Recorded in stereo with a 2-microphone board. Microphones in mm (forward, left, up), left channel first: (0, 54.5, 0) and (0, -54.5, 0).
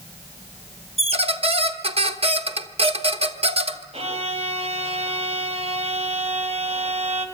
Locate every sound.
1.0 s a squeak: 65° right (ahead or behind), 1.1 m
3.9 s a violin: 65° right (ahead or behind), 3 m